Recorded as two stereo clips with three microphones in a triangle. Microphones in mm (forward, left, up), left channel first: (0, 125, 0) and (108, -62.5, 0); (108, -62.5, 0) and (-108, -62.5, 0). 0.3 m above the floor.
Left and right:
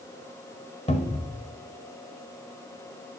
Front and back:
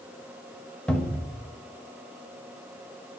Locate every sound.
0.9 s a cupboard door: 80° left, 1.2 m